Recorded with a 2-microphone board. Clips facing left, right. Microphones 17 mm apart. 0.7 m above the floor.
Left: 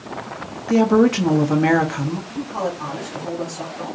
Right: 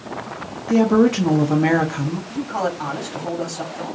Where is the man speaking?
30° right (ahead or behind), 1.6 m.